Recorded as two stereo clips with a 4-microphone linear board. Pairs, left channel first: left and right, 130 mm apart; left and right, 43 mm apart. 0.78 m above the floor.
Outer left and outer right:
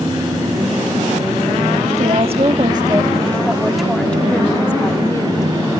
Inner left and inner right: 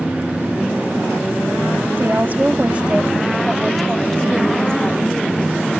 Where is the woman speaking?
55° right (ahead or behind); by 5.5 s 25° left (ahead or behind).